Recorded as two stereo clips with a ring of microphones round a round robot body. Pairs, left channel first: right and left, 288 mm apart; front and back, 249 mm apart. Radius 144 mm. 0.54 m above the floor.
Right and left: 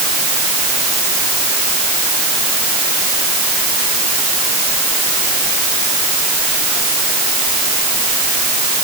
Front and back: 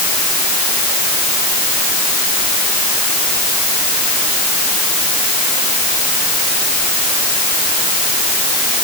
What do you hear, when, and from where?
Only background noise.